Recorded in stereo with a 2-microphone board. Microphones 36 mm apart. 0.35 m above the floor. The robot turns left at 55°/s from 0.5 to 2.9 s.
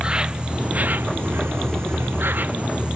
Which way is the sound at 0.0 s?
25° right.